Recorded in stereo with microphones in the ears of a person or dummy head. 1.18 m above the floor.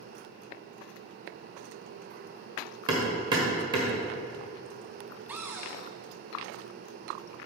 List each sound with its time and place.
2.9 s hammering: 20° right (ahead or behind), 1.4 m
5.3 s a cupboard door: 5° right (ahead or behind), 0.8 m